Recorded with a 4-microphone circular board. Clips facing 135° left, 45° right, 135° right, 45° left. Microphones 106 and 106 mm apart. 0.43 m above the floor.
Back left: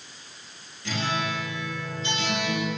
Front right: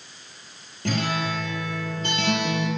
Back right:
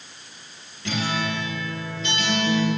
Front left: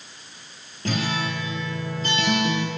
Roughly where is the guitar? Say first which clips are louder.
Front right 3 dB, even; ahead.